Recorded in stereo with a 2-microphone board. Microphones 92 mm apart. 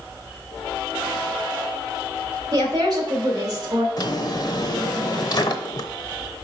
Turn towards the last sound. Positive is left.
turn(degrees=50)  # may be behind; listen again after turning